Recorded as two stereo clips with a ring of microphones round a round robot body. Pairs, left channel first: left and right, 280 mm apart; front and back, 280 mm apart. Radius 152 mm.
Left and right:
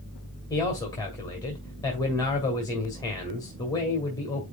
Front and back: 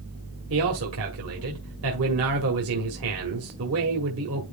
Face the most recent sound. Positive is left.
turn(degrees=165)